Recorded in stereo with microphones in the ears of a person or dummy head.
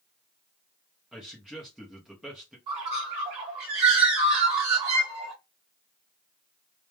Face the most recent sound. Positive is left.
turn(degrees=-30)  # may be behind; listen again after turning